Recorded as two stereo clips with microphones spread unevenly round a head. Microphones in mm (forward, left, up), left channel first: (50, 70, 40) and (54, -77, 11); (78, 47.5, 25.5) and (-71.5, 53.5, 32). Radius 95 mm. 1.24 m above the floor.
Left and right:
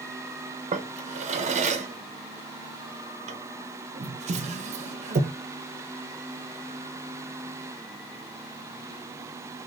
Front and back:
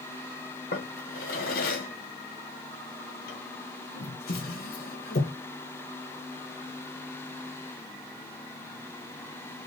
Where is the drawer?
45° right, 0.5 m.